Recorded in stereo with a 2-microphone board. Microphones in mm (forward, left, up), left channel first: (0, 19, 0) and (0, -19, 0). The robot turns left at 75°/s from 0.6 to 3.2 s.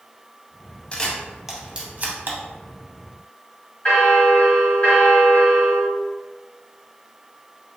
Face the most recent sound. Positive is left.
turn(degrees=40)  # may be behind; listen again after turning